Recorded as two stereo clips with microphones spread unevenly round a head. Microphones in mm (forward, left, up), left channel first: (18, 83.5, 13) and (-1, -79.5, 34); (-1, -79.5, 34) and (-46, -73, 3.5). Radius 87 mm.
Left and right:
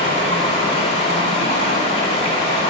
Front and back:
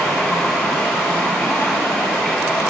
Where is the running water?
35° left, 0.8 m.